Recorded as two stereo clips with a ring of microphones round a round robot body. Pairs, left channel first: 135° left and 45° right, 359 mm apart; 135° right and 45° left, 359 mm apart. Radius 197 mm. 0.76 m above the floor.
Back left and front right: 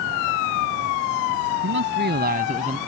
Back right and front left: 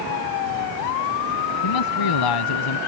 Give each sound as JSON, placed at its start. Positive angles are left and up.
{"t": 1.6, "sound": "a man speaking", "azimuth_deg": -105}